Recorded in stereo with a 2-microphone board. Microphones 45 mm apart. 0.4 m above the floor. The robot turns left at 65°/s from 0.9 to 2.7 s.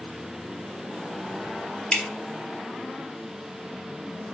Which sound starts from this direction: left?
Dripping, at 1.9 s.